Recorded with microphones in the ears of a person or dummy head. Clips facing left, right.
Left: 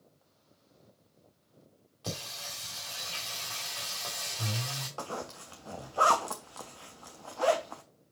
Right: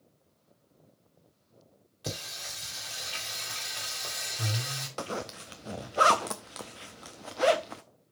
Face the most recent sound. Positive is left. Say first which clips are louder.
# right 4 dB
turn(degrees=-15)  # may be behind; listen again after turning